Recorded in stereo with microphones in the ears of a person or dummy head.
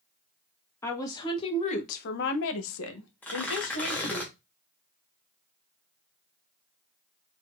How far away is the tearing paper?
About 1.4 m.